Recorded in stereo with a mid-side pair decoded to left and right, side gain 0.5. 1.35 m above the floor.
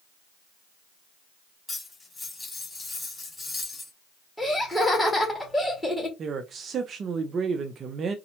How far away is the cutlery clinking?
About 2.5 m.